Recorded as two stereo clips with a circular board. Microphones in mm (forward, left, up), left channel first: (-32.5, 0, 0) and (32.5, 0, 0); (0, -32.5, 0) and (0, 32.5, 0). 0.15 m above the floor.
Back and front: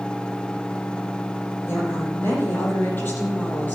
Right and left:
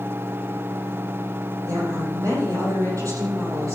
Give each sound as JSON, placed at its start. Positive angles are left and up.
{"t": 1.7, "sound": "a woman speaking", "azimuth_deg": 125, "distance_m": 6.0}